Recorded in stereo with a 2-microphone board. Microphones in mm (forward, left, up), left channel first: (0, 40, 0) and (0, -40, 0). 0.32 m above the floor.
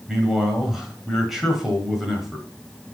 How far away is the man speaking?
About 1.7 m.